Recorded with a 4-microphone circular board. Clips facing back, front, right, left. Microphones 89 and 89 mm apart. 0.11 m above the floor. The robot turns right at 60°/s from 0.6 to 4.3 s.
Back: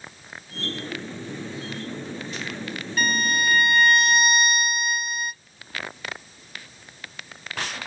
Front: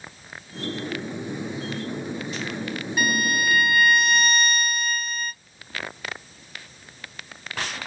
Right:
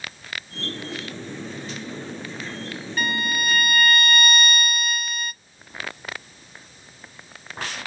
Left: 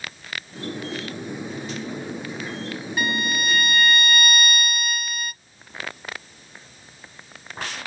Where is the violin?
40° left, 1.2 m; by 5.3 s 120° left, 1.2 m.